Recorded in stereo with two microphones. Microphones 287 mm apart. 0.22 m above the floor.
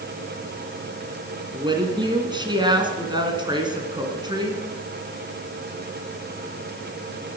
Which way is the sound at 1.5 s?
15° right (ahead or behind).